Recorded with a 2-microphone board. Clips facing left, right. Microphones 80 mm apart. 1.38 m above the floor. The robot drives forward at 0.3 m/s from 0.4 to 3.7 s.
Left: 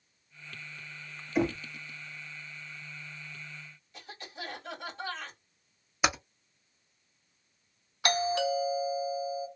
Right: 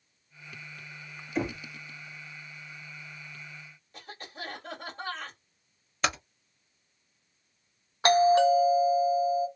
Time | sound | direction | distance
1.4 | knocking | 5° left (ahead or behind) | 0.7 m
3.9 | a cough | 45° right (ahead or behind) | 2.5 m
6.0 | typing on a keyboard | 10° left (ahead or behind) | 0.8 m
8.0 | a doorbell | 35° right (ahead or behind) | 1.1 m